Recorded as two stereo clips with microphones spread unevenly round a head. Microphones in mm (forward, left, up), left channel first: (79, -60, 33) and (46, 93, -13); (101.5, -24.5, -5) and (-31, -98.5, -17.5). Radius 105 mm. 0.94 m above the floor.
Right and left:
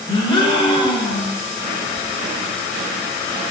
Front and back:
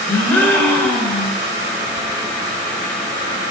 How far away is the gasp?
About 0.9 m.